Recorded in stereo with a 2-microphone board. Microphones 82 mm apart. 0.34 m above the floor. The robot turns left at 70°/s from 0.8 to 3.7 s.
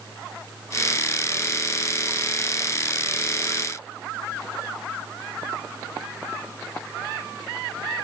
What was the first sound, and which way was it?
Only background noise.